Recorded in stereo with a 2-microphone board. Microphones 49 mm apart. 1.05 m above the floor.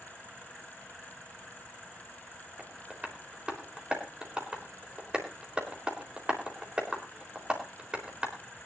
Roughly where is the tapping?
Right.